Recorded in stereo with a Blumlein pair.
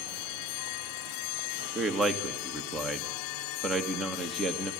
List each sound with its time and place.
1.8 s a man speaking: 20° right, 2.5 m